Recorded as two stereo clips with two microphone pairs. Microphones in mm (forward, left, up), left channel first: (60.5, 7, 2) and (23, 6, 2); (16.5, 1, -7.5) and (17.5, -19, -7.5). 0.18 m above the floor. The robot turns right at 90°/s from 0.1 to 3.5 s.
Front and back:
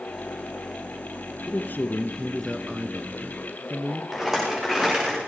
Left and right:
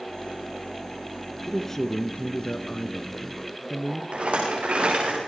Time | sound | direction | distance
1.5 | a man speaking | 5° right | 2.0 m
4.1 | a rattle | 95° right | 8 m